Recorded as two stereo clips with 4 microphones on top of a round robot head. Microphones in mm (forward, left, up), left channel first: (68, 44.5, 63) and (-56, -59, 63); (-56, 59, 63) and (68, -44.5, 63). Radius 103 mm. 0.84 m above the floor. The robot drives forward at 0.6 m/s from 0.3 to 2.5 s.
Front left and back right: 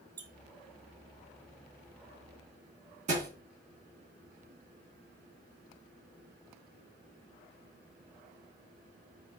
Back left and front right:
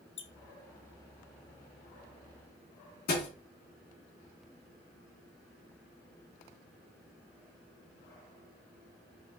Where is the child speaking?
No child speaking in this recording.